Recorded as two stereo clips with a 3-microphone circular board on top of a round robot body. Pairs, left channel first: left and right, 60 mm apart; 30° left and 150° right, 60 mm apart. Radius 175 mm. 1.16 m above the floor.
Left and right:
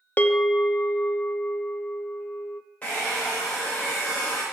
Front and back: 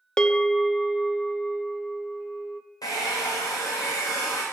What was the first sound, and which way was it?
A bell, 95° left.